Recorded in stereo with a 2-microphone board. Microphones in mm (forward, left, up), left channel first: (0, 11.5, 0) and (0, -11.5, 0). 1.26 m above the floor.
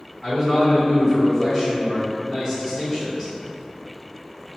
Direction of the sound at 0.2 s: 20° left (ahead or behind).